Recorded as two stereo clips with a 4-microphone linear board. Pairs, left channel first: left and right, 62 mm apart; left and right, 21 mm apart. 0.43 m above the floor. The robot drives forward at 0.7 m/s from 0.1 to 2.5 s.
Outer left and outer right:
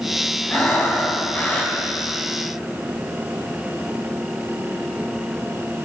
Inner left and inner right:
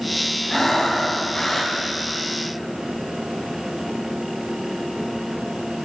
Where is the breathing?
35° left (ahead or behind), 4 m; by 1.8 s 30° left (ahead or behind), 4.5 m.